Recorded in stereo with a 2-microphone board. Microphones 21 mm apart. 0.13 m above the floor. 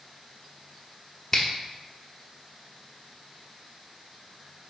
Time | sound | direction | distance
1.3 | a finger snap | 15° left (ahead or behind) | 0.8 m